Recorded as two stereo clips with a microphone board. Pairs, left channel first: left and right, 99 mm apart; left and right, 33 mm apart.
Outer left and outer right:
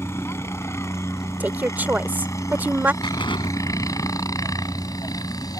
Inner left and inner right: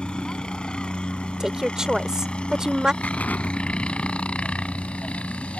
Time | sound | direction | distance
0.0 | a helicopter | 25° left (ahead or behind) | ?
1.4 | a woman speaking | 15° right (ahead or behind) | ?
3.0 | an explosion | 55° left (ahead or behind) | ?